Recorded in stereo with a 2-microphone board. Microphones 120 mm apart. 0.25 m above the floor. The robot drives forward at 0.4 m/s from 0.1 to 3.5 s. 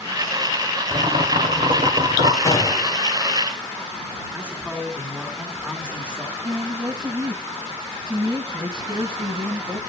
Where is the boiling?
75° right (ahead or behind), 1.6 m; by 2.4 s 70° right (ahead or behind), 1.7 m.